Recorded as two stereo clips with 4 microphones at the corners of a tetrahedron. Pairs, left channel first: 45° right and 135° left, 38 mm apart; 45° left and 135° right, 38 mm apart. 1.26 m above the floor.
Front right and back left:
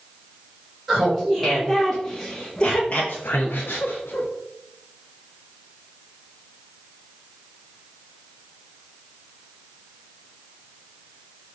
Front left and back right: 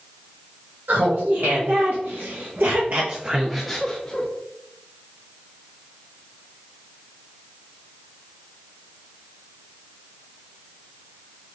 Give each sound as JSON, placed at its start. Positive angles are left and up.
{"t": 0.9, "sound": "laughter", "azimuth_deg": -135, "distance_m": 1.7}